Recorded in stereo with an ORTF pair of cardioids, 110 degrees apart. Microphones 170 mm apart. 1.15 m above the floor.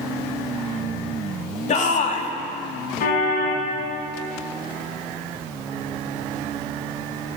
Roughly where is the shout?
Ahead left.